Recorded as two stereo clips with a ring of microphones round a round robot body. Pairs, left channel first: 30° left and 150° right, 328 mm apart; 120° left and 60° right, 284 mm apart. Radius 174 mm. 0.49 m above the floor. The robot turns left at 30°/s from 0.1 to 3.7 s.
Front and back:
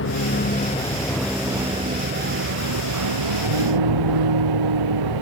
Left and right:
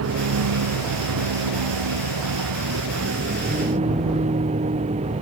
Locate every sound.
0.0 s a vehicle: 25° right; by 5.2 s 130° right